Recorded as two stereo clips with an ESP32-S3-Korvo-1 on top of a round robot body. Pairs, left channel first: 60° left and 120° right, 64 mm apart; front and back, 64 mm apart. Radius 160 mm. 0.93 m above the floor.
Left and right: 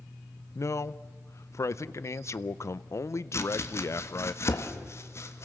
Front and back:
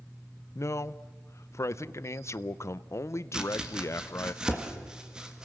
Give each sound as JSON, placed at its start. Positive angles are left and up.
{"t": 0.6, "sound": "a man speaking", "azimuth_deg": 30, "distance_m": 0.6}
{"t": 3.3, "sound": "chopping", "azimuth_deg": 105, "distance_m": 1.8}